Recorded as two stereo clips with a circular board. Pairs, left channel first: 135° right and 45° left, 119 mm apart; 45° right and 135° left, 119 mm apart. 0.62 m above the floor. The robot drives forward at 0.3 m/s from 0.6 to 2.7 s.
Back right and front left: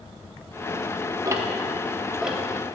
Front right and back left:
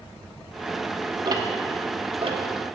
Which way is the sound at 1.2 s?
95° left.